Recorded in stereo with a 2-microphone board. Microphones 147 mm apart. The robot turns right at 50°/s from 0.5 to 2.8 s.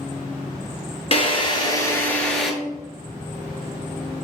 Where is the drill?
115° left, 0.8 m; by 2.5 s 175° right, 0.8 m.